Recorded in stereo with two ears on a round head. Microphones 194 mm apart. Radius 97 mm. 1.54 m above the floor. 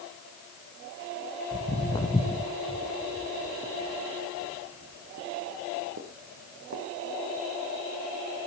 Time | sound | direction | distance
1.5 | footsteps | 25° left (ahead or behind) | 3 m